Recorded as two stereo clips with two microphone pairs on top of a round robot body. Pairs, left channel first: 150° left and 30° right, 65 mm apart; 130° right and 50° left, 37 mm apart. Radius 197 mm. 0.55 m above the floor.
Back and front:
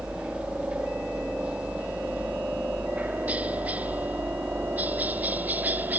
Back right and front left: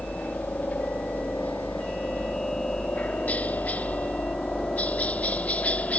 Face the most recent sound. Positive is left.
turn(degrees=-90)